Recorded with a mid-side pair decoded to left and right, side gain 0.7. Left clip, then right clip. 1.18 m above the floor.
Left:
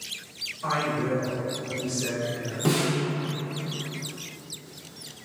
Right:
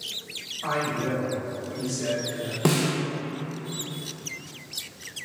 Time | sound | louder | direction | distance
0.6 | a man speaking | even | 20° right | 1.3 m
2.6 | a snare drum | right 1 dB | 35° right | 0.7 m